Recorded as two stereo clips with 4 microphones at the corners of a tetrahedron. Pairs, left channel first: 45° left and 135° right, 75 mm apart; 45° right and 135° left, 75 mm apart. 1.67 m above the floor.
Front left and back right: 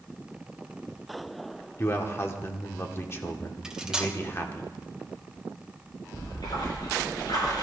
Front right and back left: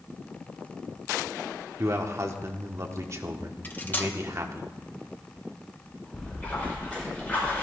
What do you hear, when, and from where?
1.8 s a man speaking: 95° left, 1.0 m
3.6 s cutlery clinking: 65° right, 0.8 m
6.1 s a splash: 25° left, 6 m